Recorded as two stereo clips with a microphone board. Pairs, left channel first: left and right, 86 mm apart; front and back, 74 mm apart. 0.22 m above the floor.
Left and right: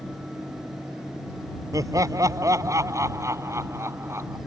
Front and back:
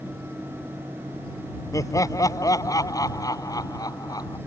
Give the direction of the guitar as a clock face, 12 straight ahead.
I don't hear a guitar.